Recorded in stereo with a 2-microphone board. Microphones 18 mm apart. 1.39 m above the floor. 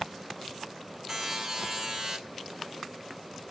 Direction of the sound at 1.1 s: 15° right (ahead or behind).